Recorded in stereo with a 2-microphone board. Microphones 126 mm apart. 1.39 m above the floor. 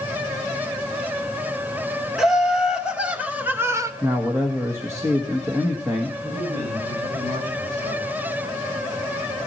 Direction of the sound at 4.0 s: 20° right (ahead or behind).